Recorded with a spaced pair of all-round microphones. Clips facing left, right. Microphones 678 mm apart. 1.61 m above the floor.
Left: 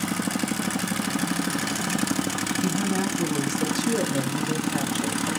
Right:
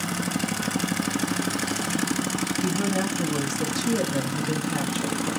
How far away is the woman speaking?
About 1.7 m.